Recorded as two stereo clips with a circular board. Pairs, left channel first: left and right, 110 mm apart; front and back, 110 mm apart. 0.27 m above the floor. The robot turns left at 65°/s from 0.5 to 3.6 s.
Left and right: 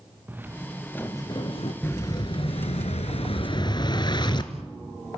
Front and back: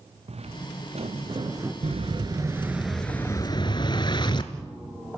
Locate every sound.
0.3 s footsteps: 160° right, 1.4 m; by 1.7 s 110° left, 2.5 m
1.8 s an explosion: 160° left, 1.3 m; by 4.5 s 45° left, 1.3 m